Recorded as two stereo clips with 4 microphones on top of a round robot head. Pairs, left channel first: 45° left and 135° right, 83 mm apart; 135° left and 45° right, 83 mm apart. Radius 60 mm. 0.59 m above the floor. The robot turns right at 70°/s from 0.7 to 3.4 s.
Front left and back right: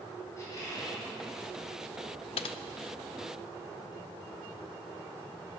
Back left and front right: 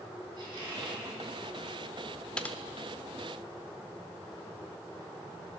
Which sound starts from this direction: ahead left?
Typing on a keyboard, at 2.4 s.